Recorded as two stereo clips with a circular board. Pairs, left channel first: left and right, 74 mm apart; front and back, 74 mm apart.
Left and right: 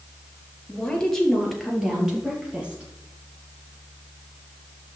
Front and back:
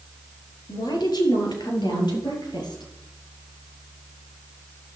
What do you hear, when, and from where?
0.7 s a woman speaking: 15° left, 4 m; by 2.9 s 15° right, 5.5 m